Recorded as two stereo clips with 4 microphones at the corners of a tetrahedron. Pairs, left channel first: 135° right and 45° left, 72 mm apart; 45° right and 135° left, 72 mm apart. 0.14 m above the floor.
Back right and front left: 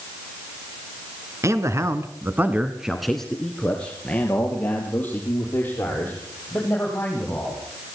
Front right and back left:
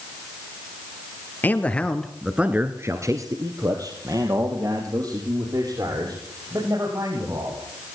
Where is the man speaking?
10° left, 1.8 m; by 7.6 s 165° left, 7.5 m.